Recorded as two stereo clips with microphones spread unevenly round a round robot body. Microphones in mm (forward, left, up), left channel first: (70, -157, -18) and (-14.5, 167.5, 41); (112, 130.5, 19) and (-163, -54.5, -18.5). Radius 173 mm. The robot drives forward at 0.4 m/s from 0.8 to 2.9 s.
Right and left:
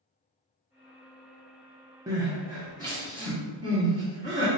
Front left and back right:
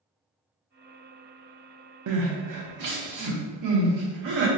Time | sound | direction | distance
2.1 | crying | 175° right | 0.6 m